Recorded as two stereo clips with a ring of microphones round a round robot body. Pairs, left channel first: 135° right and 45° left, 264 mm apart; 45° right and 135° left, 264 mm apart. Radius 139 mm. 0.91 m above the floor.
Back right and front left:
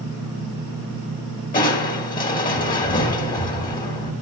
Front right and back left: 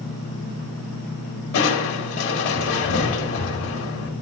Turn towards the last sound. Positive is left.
turn(degrees=-80)